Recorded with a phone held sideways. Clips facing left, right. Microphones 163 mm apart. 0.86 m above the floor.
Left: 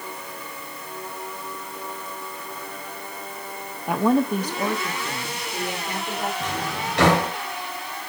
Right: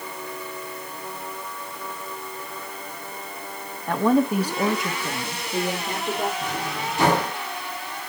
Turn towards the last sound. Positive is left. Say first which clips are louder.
# even
turn(degrees=80)